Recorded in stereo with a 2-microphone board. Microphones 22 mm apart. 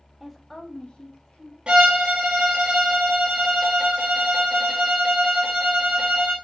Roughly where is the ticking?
I don't hear ticking.